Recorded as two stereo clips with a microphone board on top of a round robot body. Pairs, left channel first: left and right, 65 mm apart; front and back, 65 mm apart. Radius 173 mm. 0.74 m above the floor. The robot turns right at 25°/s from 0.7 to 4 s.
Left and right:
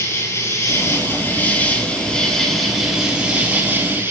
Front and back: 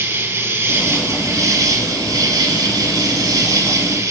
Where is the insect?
135° left, 4 m; by 4.1 s 140° right, 4 m.